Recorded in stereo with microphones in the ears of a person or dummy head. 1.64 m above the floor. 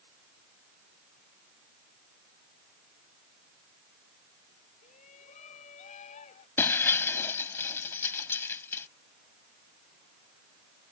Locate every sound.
4.8 s a shout: 40° left (ahead or behind); by 6.5 s 35° left (ahead or behind)
6.6 s breaking glass: 10° left (ahead or behind)